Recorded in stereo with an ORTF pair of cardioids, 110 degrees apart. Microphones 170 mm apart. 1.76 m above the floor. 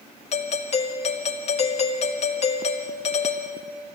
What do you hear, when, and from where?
0.3 s a doorbell: 40° left, 2.5 m